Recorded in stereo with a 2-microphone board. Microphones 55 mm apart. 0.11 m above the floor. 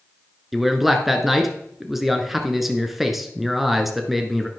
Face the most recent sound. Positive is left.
turn(degrees=0)  # may be behind; listen again after turning